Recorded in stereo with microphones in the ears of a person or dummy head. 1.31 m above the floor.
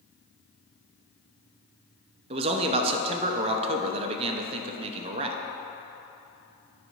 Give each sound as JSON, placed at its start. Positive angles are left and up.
{"t": 2.3, "sound": "a man speaking", "side_deg": -35, "distance_m": 0.6}